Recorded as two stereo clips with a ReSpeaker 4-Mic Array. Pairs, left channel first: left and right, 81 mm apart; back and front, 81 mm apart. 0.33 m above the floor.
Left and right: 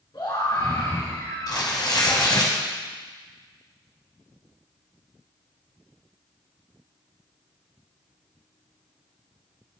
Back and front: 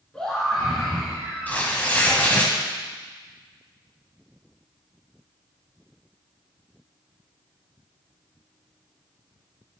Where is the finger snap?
I don't hear a finger snap.